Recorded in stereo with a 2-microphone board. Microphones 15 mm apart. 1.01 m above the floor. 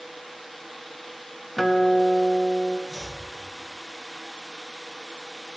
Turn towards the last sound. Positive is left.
turn(degrees=40)  # may be behind; listen again after turning